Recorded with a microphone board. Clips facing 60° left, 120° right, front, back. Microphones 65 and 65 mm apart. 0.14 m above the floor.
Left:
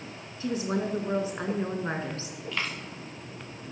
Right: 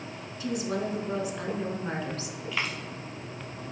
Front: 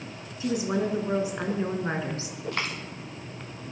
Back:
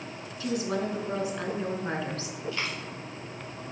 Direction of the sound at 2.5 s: 35° right.